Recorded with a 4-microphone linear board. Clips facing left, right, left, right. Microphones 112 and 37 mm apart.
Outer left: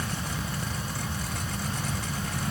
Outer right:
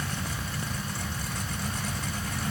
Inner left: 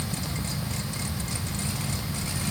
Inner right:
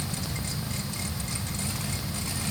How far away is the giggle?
No giggle in this recording.